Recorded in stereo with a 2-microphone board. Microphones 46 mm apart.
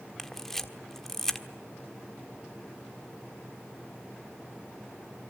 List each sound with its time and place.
0.2 s a camera shutter: 5° left (ahead or behind), 1.3 m